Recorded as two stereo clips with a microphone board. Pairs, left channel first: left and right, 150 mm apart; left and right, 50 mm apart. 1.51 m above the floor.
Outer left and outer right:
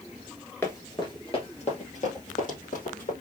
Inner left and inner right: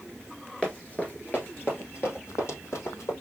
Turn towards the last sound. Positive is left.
turn(degrees=65)  # may be behind; listen again after turning